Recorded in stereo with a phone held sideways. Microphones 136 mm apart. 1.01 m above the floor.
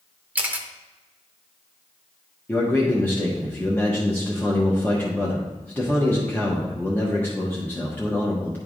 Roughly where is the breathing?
No breathing in this recording.